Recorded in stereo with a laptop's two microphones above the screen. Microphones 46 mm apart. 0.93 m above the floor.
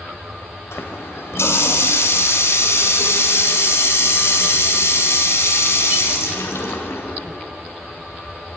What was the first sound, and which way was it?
A running tap, 80° left.